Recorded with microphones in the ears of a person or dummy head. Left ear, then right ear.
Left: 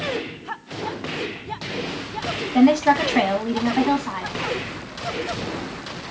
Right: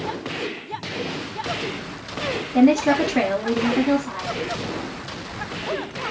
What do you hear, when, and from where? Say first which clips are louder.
2.5 s a woman speaking: left 1 dB; 35° left (ahead or behind), 1.0 m